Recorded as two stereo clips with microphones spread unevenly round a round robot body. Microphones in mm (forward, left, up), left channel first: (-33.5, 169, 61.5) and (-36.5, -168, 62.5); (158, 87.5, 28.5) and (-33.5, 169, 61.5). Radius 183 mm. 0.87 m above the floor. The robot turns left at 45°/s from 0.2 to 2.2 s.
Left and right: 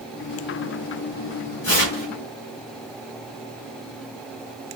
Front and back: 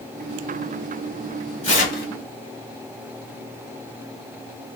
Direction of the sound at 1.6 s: 40° left.